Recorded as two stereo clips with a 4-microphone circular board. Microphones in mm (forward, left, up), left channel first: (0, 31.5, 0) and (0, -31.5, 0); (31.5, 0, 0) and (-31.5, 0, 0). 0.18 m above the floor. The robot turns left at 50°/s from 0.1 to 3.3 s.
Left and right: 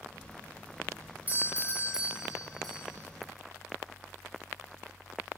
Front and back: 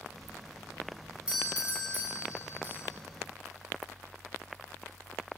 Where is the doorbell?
120° right, 2 m; by 2.9 s 160° left, 2 m.